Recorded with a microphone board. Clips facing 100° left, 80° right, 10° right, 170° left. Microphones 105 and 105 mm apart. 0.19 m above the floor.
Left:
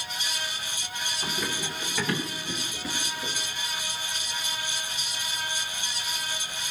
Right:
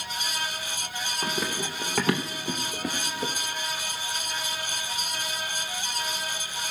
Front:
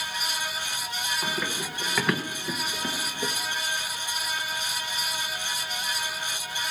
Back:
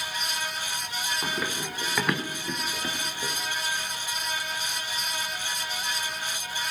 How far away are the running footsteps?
About 2.5 m.